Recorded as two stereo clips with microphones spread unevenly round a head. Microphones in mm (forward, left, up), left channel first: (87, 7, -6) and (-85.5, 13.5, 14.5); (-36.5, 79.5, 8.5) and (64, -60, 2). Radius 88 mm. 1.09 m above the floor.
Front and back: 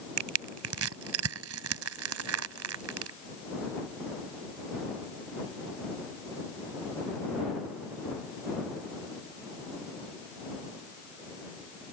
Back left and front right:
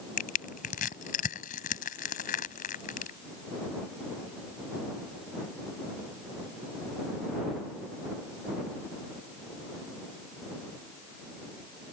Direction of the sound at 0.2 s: 175° left.